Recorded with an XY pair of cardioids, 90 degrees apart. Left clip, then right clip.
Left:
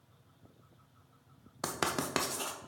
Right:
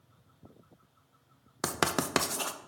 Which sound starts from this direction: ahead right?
Writing, at 1.6 s.